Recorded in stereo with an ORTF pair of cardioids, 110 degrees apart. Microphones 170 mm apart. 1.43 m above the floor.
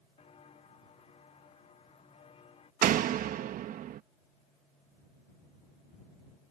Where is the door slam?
65° right.